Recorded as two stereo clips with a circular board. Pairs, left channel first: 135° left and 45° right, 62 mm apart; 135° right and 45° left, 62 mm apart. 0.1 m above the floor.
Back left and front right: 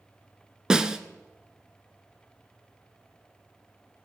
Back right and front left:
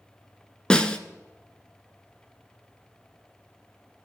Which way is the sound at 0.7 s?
100° right.